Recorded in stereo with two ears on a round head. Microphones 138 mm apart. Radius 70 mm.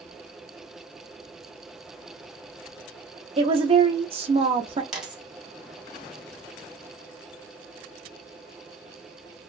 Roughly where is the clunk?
No clunk in this recording.